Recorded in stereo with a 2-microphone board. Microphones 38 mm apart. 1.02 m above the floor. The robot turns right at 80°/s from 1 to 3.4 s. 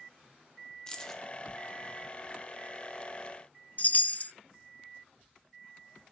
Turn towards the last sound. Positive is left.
turn(degrees=40)  # may be behind; listen again after turning